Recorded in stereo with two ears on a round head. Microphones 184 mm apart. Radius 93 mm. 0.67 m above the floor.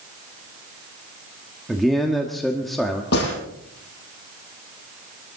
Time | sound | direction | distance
1.7 | a man speaking | centre (ahead or behind) | 1.3 m
3.1 | a gunshot | 55° left (ahead or behind) | 7.5 m